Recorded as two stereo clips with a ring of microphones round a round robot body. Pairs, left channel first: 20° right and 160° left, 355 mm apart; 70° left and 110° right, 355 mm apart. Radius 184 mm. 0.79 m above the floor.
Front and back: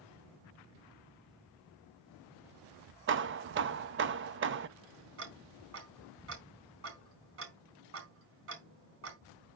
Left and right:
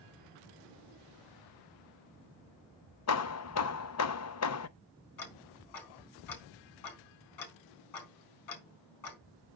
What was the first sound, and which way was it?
Hammering, 105° left.